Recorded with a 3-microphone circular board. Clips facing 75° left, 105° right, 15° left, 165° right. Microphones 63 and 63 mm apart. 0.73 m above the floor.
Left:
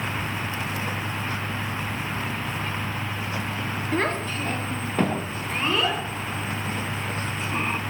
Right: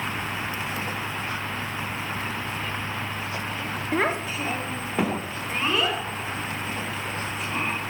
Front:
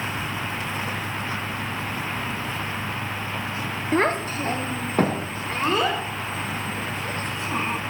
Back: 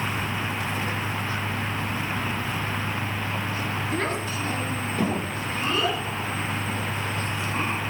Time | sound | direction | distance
3.9 | a child speaking | 30° right | 1.0 m